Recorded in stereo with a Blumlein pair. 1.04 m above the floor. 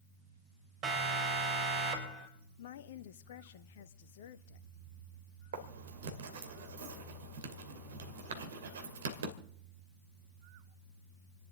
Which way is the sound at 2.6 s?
55° left.